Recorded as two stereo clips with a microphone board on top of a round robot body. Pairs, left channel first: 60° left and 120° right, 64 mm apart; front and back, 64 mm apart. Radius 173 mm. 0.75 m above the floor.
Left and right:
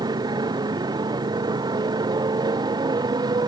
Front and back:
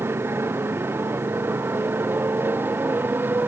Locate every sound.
0.0 s a motorcycle: 125° right; by 3.5 s 120° right